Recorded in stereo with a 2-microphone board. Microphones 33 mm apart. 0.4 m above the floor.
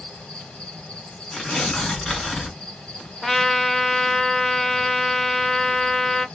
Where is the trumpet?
5° left (ahead or behind), 0.6 m.